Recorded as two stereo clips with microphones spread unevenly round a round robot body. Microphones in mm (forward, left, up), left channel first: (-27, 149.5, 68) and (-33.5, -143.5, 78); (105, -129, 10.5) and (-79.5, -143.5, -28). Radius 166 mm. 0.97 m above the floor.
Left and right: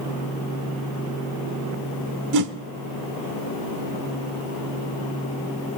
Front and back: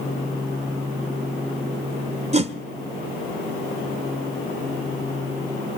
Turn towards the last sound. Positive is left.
turn(degrees=-115)